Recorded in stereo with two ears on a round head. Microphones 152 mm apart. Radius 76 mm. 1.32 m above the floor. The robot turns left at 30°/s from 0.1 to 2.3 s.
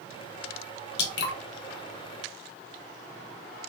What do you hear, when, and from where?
1.0 s dripping: 65° left (ahead or behind), 0.6 m; by 1.3 s 70° left (ahead or behind), 0.6 m